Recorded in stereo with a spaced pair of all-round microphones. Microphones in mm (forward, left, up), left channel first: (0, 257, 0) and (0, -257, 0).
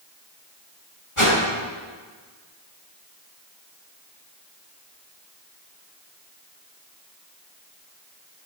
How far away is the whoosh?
About 5.5 m.